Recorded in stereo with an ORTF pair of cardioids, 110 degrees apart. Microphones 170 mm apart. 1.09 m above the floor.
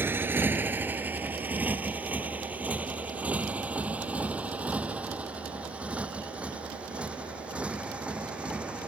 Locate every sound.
0.0 s a motorcycle: 10° right; by 8.9 s 5° right